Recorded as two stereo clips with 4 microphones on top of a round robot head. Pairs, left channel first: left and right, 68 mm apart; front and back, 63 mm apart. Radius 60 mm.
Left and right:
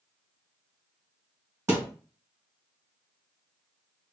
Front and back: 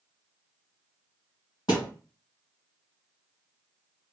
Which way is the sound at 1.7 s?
40° right.